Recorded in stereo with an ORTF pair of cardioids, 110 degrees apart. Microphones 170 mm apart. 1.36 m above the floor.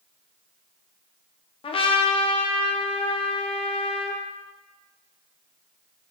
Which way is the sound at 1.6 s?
30° left.